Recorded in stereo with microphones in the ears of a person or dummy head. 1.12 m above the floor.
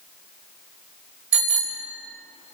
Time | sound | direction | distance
1.3 | a bicycle bell | 5° right (ahead or behind) | 3 m